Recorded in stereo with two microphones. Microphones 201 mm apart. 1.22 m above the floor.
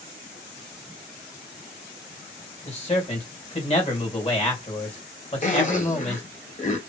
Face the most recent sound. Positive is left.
turn(degrees=40)  # may be behind; listen again after turning